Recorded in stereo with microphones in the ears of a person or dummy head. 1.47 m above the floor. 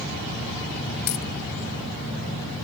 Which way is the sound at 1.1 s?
60° left (ahead or behind).